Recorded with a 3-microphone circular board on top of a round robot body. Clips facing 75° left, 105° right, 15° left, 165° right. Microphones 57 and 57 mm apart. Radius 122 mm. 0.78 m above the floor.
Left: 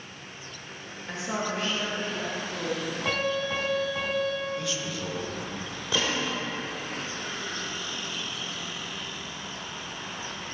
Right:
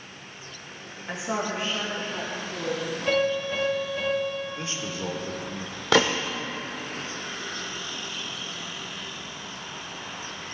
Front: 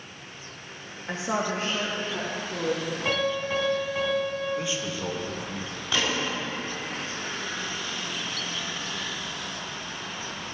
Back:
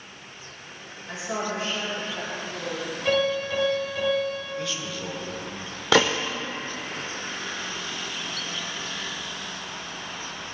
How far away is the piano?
About 4.5 m.